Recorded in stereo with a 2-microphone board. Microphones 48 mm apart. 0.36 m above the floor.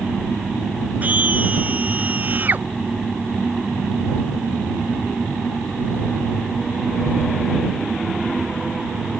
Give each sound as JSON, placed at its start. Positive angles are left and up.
{"t": 1.0, "sound": "a scream", "side_deg": -30}